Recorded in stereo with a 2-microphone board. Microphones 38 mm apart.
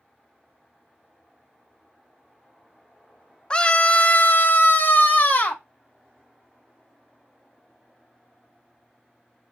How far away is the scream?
About 0.7 m.